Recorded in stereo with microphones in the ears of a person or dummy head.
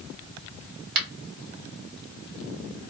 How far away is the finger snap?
About 1.7 m.